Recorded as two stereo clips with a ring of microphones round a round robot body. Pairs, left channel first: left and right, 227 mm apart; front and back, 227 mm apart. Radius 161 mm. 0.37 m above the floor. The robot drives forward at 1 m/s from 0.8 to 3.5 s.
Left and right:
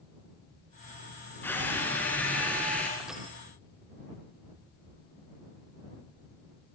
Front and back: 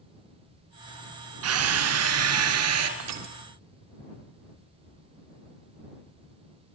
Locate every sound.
1.4 s a drill: 175° left, 2.5 m
3.0 s crushing: straight behind, 2.5 m